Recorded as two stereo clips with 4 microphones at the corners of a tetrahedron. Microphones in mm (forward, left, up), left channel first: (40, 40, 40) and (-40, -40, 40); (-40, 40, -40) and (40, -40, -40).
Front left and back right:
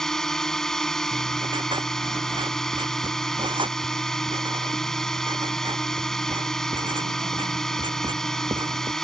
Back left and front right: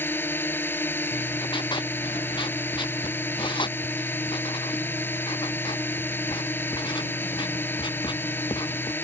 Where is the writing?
Straight behind.